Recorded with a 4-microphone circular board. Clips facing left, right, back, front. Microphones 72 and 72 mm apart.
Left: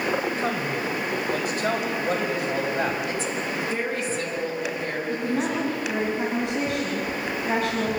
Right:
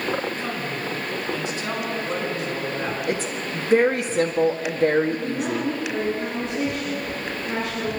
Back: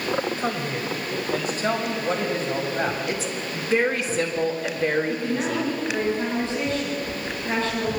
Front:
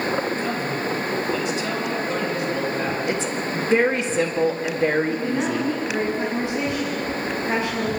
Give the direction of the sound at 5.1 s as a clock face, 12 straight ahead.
10 o'clock.